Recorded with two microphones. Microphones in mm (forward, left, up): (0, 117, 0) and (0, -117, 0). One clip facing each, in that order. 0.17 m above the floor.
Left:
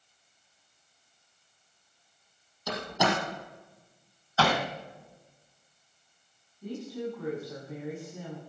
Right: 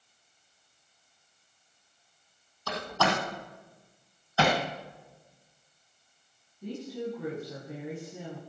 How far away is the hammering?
About 1.5 m.